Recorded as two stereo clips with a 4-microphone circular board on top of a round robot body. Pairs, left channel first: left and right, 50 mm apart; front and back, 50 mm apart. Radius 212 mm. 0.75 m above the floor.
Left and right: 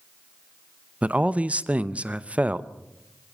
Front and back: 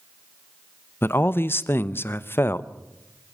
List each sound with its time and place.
1.0 s a man speaking: 30° right, 1.0 m